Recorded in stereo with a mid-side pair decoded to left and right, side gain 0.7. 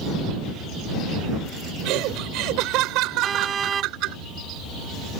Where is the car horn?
30° right.